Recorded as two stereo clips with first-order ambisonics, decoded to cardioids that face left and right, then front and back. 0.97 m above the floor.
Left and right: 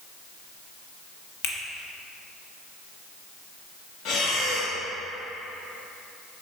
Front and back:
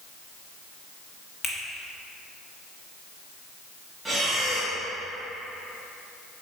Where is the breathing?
95° left, 1.5 m.